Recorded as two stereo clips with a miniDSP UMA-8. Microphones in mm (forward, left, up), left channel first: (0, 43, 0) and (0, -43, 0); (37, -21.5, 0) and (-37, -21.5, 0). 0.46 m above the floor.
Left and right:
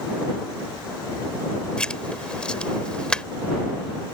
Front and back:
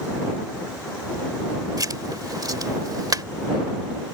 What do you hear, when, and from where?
1.8 s writing: 165° left